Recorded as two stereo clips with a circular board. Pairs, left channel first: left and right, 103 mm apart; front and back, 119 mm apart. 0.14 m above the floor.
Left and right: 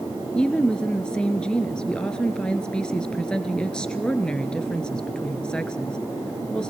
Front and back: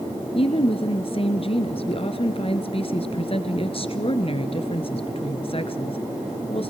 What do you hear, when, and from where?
0.3 s a woman speaking: 10° left, 1.8 m